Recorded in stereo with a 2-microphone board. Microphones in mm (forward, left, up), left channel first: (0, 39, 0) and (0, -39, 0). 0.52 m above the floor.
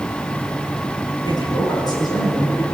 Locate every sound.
1.2 s a man speaking: 65° left (ahead or behind), 9 m